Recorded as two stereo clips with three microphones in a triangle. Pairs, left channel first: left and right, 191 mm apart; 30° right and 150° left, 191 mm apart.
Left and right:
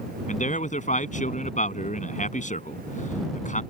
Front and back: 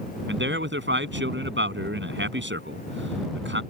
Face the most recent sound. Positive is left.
turn(degrees=140)